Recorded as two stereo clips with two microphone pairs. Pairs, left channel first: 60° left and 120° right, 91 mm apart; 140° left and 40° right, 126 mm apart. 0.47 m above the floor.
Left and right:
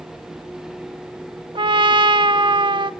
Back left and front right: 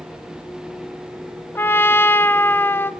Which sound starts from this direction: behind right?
A trumpet, at 1.6 s.